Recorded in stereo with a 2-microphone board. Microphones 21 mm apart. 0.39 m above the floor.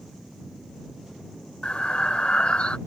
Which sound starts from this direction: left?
Breathing, at 1.6 s.